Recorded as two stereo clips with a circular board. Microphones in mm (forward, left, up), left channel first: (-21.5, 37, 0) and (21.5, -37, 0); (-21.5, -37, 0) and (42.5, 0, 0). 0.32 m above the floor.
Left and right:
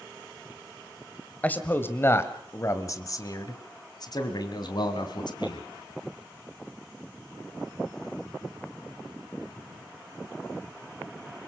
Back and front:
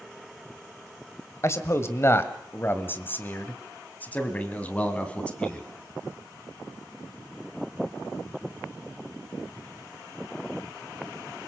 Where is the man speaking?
175° right, 1.7 m; by 5.7 s 135° left, 3 m.